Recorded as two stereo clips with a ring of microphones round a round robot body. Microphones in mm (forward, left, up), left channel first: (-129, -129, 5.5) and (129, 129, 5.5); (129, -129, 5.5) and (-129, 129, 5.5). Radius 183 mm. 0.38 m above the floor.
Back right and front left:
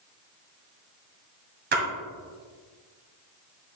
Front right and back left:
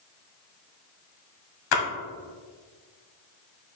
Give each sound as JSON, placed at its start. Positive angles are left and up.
{"t": 1.7, "sound": "a splash", "azimuth_deg": -20, "distance_m": 1.7}